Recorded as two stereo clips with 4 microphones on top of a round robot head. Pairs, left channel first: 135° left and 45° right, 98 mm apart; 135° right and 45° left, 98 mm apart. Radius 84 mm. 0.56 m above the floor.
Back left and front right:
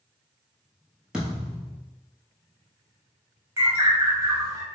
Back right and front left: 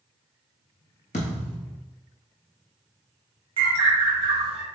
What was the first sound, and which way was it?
A thud, 125° right.